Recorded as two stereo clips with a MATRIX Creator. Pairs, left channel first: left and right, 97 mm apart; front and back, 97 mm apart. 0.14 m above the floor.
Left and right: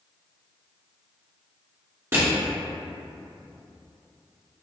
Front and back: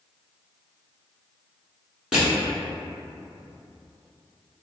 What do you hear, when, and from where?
2.1 s crushing: 105° right, 1.7 m